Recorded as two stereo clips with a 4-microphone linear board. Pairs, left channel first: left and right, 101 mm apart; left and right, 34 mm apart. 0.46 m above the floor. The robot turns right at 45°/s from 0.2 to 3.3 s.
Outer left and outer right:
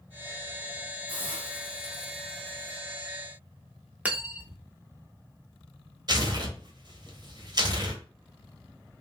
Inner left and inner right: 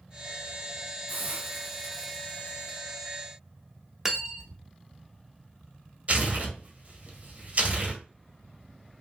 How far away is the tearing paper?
About 0.9 m.